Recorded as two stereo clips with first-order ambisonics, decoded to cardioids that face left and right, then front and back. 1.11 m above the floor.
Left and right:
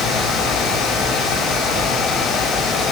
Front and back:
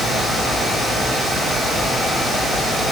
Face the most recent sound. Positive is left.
No sound to turn to.